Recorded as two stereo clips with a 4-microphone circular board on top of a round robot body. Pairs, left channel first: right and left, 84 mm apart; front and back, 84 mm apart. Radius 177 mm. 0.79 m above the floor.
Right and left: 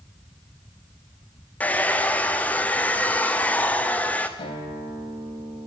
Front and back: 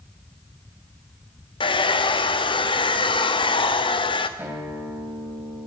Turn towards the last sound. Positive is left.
turn(degrees=-110)